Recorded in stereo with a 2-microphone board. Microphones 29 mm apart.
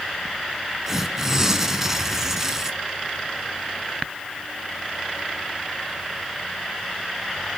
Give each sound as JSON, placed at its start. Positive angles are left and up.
{"t": 0.9, "sound": "tearing paper", "side_deg": -15, "distance_m": 1.0}